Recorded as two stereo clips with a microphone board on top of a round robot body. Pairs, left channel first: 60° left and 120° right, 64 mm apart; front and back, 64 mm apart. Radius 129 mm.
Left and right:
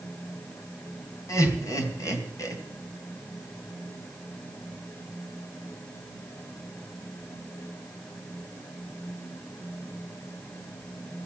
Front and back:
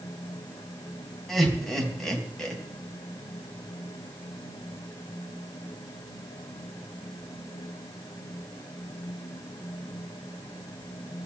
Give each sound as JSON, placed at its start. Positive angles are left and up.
{"t": 1.3, "sound": "laughter", "azimuth_deg": 85, "distance_m": 4.0}